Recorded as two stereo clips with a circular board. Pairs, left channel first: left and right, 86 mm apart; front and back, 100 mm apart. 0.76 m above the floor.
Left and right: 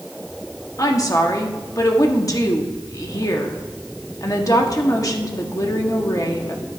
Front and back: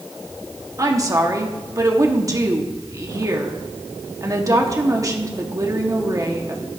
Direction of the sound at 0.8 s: 130° left.